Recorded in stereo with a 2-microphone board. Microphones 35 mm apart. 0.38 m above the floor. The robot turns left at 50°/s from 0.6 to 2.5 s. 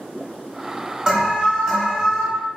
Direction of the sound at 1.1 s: 15° right (ahead or behind).